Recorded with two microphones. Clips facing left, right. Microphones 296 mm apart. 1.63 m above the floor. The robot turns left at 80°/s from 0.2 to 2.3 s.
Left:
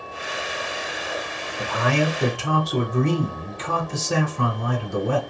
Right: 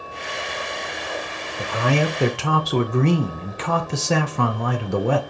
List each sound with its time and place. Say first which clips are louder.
1.6 s a man speaking: right 1 dB; 20° right, 0.6 m; by 5.2 s 75° right, 0.6 m